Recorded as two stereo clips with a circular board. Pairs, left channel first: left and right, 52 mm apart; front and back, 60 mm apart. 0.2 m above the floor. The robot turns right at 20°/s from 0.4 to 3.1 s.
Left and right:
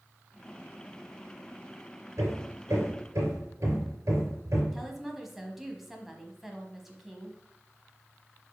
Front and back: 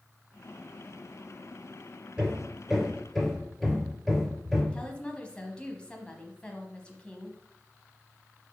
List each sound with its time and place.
2.2 s hammering: 105° right, 3 m; by 4.6 s 85° right, 3 m
4.7 s a woman speaking: 15° right, 1.0 m